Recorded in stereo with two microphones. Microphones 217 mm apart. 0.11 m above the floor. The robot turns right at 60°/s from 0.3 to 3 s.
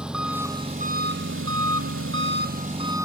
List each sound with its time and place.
0.0 s an engine running: 175° right, 1.1 m; by 3.1 s 15° right, 1.1 m